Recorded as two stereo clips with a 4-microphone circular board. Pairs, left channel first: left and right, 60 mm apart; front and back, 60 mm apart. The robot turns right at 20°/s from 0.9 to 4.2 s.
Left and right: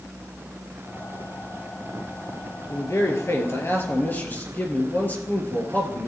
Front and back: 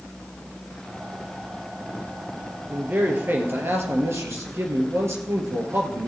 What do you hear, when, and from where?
2.7 s a man speaking: 120° left, 3 m; by 6.1 s 150° left, 3 m